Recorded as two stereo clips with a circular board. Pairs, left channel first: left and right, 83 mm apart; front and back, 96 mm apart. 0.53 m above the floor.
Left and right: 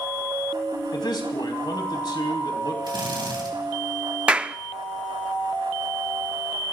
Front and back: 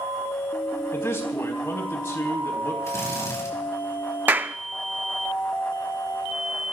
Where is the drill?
60° right, 3.5 m.